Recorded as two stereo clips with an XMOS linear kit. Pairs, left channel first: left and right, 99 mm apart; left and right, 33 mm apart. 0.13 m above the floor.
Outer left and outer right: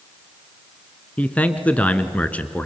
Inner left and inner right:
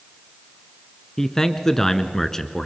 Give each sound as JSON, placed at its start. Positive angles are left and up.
{"t": 1.2, "sound": "a man speaking", "side_deg": 15, "distance_m": 1.4}